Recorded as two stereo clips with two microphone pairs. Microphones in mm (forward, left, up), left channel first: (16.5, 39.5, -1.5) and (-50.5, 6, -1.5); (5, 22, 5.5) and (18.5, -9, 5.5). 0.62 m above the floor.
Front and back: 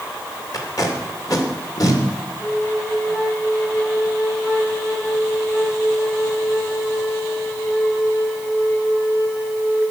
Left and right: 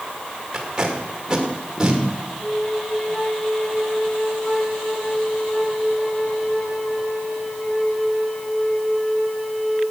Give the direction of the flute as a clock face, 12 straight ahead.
10 o'clock.